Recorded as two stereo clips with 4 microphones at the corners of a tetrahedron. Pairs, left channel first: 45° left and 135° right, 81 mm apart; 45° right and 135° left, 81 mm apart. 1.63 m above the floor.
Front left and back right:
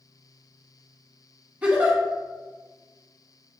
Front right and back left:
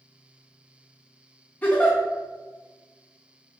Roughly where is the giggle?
Right.